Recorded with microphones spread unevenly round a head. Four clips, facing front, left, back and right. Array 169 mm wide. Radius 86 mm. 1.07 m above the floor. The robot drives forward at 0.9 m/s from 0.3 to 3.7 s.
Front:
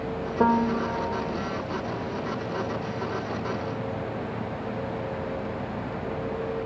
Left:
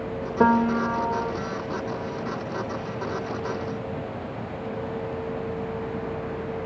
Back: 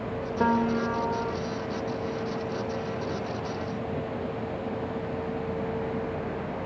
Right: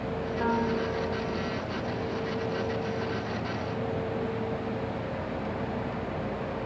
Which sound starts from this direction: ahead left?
A piano, at 0.4 s.